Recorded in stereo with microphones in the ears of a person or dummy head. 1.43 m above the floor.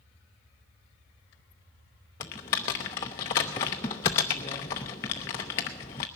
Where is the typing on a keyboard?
15° left (ahead or behind), 0.6 m.